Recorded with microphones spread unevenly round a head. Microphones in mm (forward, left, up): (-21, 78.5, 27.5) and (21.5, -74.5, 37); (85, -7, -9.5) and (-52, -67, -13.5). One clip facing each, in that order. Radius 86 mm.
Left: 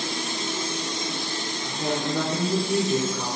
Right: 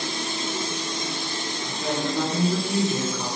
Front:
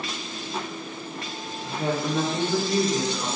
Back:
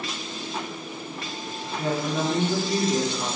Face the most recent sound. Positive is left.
turn(degrees=165)